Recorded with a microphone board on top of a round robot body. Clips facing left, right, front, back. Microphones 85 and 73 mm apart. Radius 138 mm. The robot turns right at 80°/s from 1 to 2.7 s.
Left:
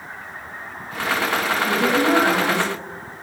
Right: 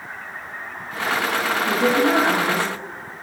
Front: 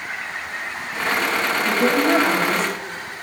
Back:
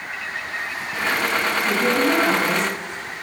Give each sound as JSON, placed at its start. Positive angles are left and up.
{"t": 1.6, "sound": "a woman speaking", "azimuth_deg": -45, "distance_m": 1.4}